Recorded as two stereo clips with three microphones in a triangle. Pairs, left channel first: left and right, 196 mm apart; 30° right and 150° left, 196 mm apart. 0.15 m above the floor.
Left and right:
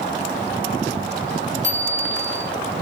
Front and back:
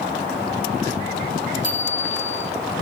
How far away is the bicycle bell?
About 4.5 m.